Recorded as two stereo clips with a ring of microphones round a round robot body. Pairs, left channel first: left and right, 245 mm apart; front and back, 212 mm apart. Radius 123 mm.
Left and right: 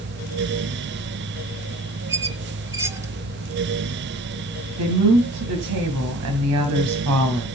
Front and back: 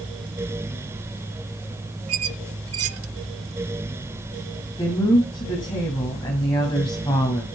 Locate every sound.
2.1 s a squeak: 170° right, 0.8 m
4.8 s a woman speaking: 70° right, 2.5 m